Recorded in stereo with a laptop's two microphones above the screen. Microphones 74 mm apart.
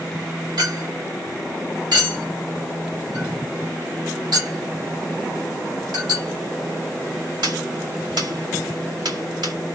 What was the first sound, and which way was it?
A clink, 75° right (ahead or behind).